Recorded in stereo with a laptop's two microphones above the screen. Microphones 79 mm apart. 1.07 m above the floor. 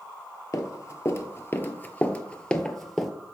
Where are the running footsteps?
40° left (ahead or behind), 1.4 m; by 3.1 s centre (ahead or behind), 1.3 m.